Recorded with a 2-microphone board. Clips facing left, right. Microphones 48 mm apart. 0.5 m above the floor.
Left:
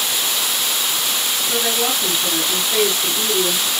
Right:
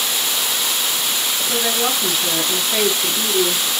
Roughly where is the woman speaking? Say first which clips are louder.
Even; centre.